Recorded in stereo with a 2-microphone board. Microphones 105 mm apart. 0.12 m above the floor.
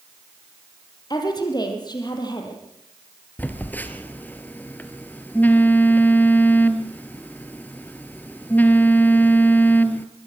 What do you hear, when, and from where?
1.1 s a woman speaking: 40° left (ahead or behind), 4 m
3.4 s a phone buzzing: 15° left (ahead or behind), 1.4 m